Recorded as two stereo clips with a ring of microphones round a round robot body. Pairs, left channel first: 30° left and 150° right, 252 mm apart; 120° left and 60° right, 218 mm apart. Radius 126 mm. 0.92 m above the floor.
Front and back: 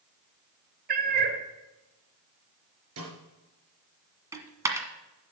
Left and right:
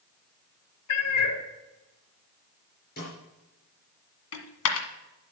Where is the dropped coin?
130° left, 1.6 m.